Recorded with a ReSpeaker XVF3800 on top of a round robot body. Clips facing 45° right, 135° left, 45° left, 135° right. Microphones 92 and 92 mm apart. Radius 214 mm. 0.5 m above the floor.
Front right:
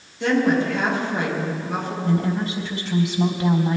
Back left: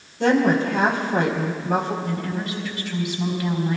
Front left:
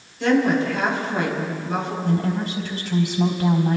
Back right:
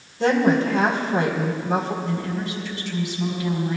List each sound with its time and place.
0.2 s a woman speaking: 175° left, 4 m
2.0 s a woman speaking: 5° left, 3.5 m